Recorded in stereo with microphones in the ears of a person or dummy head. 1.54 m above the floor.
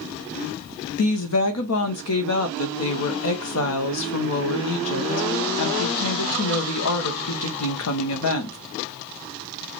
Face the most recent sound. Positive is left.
turn(degrees=80)